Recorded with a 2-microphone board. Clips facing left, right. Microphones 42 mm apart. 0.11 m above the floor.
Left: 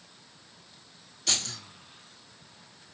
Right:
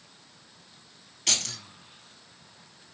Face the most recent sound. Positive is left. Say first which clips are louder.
# right 1 dB
turn(degrees=-55)  # may be behind; listen again after turning